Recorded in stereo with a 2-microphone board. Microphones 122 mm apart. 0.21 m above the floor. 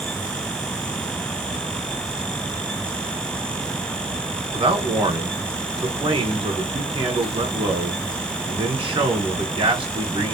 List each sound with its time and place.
4.5 s a man speaking: 45° right (ahead or behind), 2 m